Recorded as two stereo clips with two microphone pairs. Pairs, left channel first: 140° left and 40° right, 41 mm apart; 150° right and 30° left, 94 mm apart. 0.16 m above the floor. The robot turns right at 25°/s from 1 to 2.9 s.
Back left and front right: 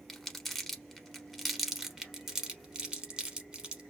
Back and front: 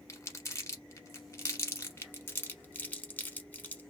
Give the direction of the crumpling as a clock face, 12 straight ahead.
5 o'clock.